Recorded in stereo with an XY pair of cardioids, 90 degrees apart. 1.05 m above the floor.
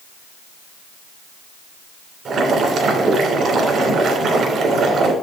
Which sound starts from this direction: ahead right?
Boiling, at 2.2 s.